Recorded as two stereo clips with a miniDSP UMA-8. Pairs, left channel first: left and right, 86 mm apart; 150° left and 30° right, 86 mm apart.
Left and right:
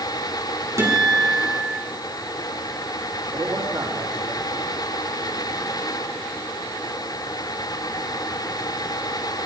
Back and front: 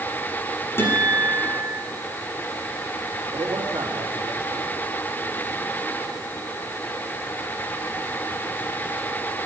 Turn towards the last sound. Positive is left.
turn(degrees=-50)